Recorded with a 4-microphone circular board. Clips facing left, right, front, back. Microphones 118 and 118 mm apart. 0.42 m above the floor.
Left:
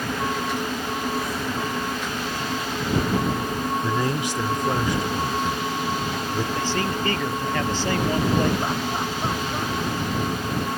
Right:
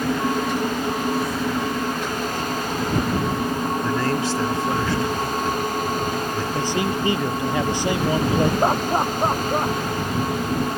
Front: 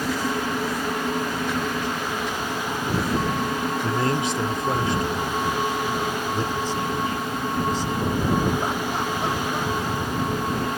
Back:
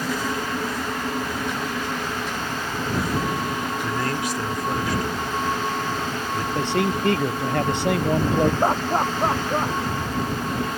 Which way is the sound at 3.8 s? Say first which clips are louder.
Right 2 dB, front 4 dB; 30° left.